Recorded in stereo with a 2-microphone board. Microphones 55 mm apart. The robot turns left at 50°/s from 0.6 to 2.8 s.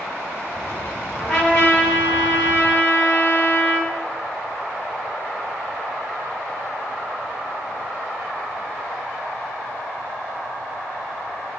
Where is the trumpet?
165° left, 1.1 m; by 3.9 s 85° left, 1.1 m.